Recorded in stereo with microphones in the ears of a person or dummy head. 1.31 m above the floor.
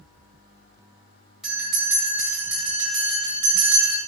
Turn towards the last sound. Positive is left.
turn(degrees=0)  # may be behind; listen again after turning